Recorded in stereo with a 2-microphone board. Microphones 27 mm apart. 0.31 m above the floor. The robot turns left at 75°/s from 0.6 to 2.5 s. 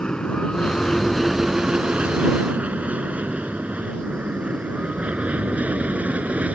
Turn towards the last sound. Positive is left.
turn(degrees=-70)  # may be behind; listen again after turning